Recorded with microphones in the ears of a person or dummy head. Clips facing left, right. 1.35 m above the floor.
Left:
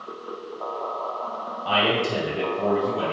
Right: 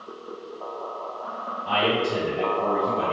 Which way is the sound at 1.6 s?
70° left (ahead or behind).